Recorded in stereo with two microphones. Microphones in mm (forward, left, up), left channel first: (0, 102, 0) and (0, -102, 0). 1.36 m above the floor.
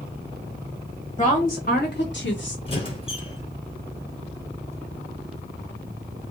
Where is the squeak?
25° left (ahead or behind), 1.6 m.